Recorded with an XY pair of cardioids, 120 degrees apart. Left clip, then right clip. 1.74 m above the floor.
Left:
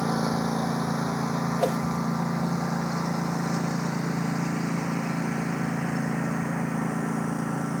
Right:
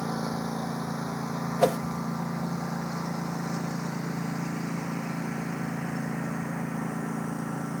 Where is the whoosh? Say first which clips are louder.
Right 3 dB; 25° right.